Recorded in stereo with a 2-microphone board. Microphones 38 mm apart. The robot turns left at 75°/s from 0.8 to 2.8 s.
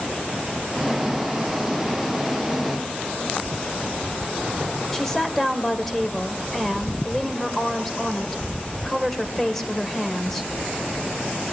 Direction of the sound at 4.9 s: 10° left (ahead or behind).